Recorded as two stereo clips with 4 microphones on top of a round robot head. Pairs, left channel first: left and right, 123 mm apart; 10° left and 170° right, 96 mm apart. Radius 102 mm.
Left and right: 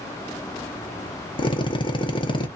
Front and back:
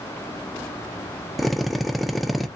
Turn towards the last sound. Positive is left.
turn(degrees=100)